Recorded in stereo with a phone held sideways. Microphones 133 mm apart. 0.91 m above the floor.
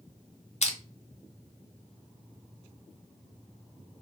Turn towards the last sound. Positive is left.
turn(degrees=55)  # may be behind; listen again after turning